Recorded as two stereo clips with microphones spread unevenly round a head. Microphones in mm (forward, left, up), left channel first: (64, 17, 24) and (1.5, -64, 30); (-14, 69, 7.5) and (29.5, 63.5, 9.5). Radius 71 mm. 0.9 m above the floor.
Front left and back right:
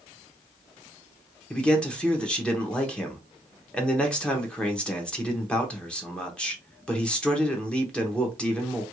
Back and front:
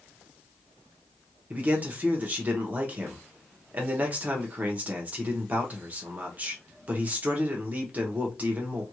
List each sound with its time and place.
1.5 s a man speaking: 15° right, 0.9 m